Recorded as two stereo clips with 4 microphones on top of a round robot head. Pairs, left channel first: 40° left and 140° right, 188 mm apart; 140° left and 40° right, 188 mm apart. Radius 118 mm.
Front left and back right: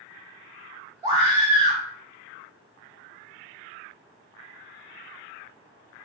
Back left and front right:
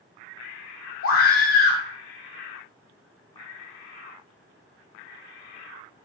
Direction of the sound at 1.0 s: 150° left.